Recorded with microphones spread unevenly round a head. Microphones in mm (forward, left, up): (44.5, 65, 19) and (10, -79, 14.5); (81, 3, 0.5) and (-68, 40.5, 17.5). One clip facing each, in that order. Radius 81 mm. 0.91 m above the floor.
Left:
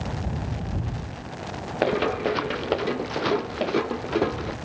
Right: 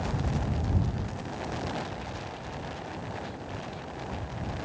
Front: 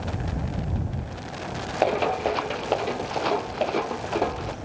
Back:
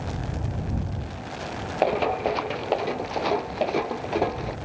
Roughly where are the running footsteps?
Left.